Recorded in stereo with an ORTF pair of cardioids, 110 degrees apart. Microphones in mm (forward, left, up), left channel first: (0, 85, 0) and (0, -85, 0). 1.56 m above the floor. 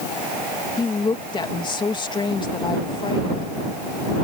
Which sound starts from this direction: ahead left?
A woman speaking, at 0.8 s.